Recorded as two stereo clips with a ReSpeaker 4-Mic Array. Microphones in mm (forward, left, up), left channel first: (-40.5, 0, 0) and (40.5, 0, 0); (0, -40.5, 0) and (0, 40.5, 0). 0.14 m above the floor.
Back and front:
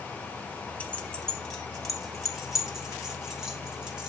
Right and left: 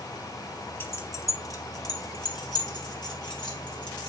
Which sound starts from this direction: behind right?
Keys jangling, at 0.8 s.